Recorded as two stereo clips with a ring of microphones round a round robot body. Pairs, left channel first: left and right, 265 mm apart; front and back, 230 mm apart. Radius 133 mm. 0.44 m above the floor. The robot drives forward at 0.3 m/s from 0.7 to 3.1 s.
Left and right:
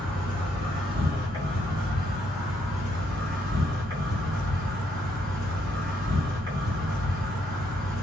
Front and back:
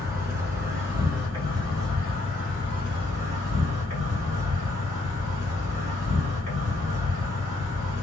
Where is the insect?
125° right, 1.7 m; by 8.0 s 155° right, 2.0 m.